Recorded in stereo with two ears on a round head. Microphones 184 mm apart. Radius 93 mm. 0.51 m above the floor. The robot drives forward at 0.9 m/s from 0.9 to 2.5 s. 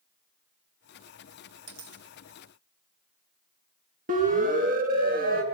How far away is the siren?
About 6.5 m.